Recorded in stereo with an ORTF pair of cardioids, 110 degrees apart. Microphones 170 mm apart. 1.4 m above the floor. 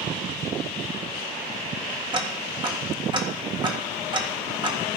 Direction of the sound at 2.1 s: 30° right.